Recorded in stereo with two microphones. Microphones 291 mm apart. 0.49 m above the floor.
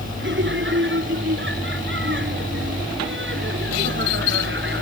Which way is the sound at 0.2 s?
40° right (ahead or behind).